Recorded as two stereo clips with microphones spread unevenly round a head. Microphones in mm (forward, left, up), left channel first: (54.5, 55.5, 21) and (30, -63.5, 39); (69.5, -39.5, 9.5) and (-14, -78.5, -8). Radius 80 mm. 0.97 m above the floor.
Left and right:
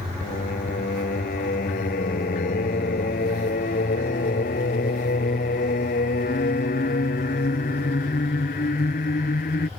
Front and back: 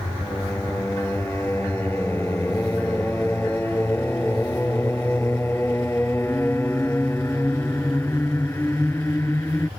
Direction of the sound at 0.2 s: 105° left.